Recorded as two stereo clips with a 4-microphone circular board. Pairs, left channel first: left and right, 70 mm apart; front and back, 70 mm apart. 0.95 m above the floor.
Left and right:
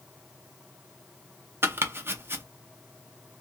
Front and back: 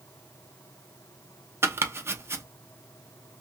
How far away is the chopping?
About 0.5 m.